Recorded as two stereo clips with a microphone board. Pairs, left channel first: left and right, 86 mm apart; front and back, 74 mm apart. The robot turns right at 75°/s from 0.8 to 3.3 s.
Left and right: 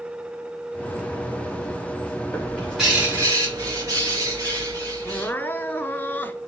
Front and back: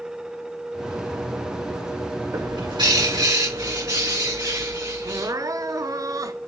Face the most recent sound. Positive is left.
turn(degrees=155)